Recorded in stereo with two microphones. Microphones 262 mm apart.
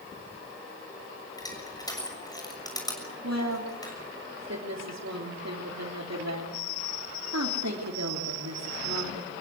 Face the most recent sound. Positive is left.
turn(degrees=-80)